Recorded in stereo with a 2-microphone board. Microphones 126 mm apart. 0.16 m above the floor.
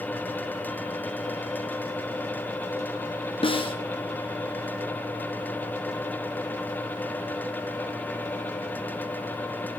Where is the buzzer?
No buzzer in this recording.